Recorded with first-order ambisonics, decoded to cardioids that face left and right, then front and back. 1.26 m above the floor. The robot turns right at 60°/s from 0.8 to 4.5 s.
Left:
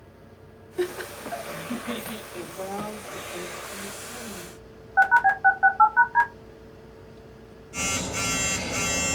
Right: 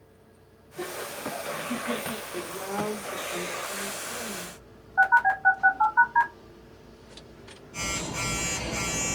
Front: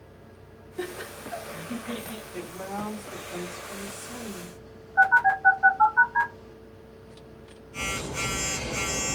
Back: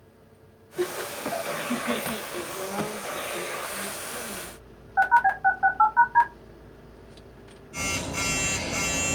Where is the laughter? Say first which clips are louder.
Left 4 dB, back 6 dB; 105° left, 0.5 m; by 2.2 s 170° right, 0.5 m.